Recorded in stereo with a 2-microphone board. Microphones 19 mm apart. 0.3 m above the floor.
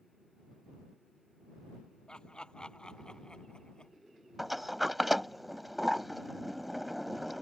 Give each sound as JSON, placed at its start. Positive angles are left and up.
{"t": 2.1, "sound": "laughter", "side_deg": 50}
{"t": 4.4, "sound": "a sliding door", "side_deg": -5}